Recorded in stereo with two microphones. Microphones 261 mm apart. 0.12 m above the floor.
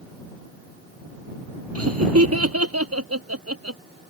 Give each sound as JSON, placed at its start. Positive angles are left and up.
{"t": 1.8, "sound": "laughter", "side_deg": -65}